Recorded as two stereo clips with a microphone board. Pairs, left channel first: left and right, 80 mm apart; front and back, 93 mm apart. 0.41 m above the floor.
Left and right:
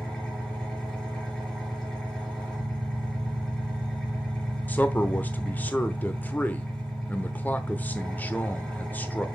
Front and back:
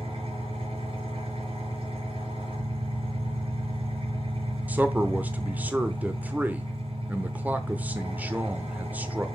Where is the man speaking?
130° left, 0.8 m.